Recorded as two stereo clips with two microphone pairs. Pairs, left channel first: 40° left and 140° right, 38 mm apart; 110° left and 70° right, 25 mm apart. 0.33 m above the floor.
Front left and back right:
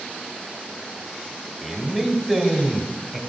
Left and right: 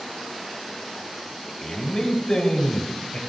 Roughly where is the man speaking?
Behind left.